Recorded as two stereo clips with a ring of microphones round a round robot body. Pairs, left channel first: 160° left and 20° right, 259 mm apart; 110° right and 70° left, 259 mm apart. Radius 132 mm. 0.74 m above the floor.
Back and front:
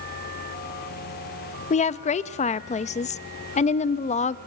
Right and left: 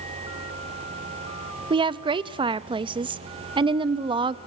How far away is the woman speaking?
About 0.5 m.